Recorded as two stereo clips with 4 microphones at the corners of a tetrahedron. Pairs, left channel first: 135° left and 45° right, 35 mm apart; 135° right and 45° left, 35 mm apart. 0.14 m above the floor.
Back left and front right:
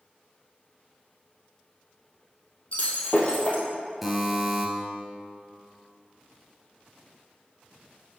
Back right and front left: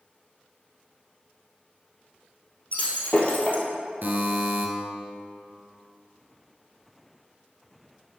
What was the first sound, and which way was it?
Breaking glass, straight behind.